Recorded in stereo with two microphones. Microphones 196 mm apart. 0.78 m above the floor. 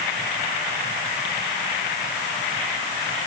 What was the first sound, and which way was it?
Only background noise.